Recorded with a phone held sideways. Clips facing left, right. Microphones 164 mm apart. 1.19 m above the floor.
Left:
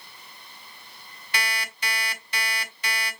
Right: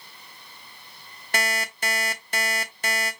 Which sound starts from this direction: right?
An alarm clock, at 1.3 s.